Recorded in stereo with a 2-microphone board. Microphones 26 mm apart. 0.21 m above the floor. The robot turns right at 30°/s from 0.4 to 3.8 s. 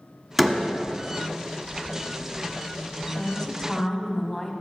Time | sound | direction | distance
0.4 | a door slam | centre (ahead or behind) | 1.4 m
3.2 | a woman speaking | 20° left (ahead or behind) | 1.4 m